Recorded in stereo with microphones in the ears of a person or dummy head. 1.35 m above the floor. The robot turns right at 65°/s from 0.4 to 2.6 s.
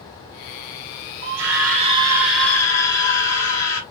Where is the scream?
75° right, 2 m; by 3.8 s 15° left, 2 m.